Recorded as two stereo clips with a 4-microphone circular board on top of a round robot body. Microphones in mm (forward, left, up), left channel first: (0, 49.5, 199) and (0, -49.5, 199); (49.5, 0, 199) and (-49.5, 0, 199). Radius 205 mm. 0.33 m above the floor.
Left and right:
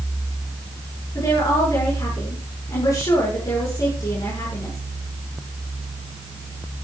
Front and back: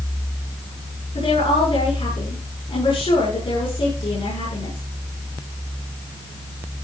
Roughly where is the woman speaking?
Ahead left.